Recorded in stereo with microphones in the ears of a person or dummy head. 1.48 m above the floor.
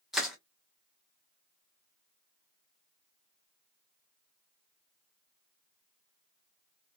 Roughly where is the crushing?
Centre.